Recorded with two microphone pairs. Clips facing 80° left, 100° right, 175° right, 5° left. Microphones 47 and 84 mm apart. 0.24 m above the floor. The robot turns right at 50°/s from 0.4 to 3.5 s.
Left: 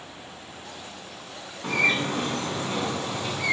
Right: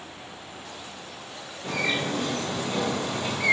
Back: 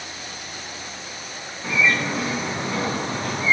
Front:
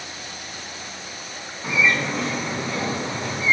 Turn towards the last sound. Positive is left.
turn(degrees=175)